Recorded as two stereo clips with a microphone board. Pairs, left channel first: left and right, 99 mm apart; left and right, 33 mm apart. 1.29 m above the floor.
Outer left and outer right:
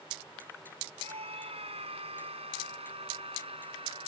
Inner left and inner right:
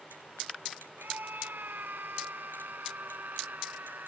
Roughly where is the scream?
Right.